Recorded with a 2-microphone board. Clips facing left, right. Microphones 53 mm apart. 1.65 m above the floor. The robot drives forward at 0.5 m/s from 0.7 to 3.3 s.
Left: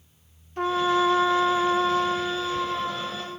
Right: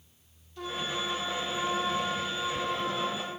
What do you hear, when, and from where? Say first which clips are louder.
0.6 s a trumpet: left 12 dB; 50° left (ahead or behind), 0.5 m; by 3.3 s 20° left (ahead or behind), 1.2 m